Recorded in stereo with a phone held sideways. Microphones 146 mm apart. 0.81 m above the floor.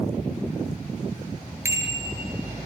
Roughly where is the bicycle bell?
Centre.